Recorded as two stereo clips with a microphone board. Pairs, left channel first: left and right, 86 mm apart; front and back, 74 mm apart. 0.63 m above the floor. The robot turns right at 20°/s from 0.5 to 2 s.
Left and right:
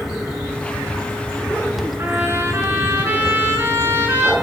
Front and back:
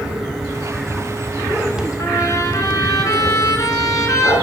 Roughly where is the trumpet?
Ahead right.